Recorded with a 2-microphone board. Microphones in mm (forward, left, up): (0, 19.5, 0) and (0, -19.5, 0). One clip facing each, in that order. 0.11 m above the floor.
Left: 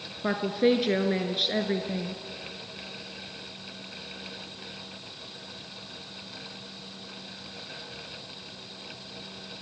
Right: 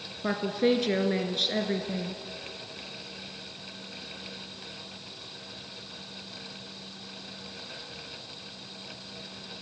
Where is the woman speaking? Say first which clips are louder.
Left 2 dB; 10° left (ahead or behind), 1.3 m.